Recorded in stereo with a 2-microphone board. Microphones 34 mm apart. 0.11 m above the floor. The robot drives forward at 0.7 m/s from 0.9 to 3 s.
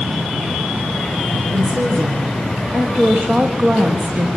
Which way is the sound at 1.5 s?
80° right.